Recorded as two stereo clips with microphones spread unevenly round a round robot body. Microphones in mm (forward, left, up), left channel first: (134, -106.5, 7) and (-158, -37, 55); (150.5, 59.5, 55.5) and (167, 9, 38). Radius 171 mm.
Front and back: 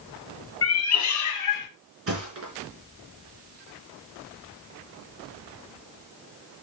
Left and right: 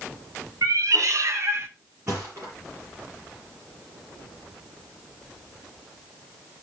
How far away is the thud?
About 4 m.